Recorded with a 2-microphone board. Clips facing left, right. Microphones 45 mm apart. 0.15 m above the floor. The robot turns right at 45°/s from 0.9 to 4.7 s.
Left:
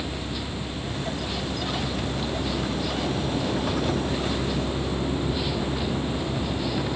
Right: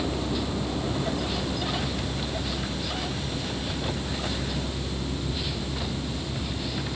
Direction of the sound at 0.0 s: 35° right.